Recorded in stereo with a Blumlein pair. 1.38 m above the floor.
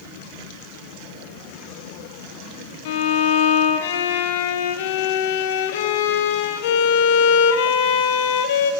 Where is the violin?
55° left, 1.4 m.